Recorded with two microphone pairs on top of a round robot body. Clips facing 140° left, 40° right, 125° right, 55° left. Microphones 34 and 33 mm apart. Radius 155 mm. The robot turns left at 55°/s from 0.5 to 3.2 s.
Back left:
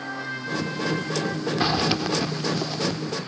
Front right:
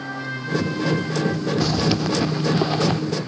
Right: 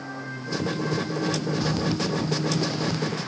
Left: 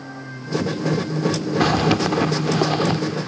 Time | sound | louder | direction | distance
1.6 | a zipper | even, left 8 dB | 85° left | ?